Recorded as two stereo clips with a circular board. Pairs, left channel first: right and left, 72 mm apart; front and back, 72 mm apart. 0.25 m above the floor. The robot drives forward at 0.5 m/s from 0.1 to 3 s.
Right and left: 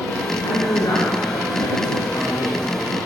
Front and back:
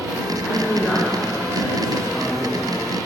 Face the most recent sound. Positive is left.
turn(degrees=-95)